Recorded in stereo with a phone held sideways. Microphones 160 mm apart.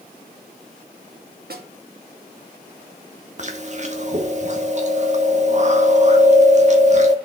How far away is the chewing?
About 1.7 m.